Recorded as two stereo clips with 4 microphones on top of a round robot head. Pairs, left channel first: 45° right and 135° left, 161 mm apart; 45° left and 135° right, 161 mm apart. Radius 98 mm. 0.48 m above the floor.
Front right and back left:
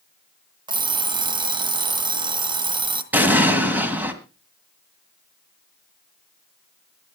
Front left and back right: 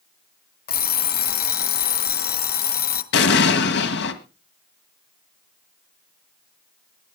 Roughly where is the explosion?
Ahead left.